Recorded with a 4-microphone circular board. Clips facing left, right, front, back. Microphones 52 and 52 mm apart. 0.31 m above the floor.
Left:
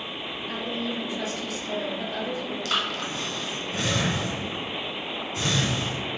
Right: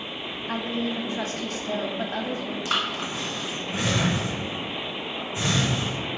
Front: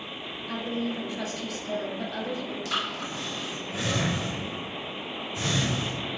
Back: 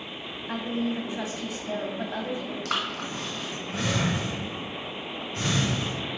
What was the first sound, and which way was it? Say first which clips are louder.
A woman speaking: right 3 dB, back 2 dB; 125° right.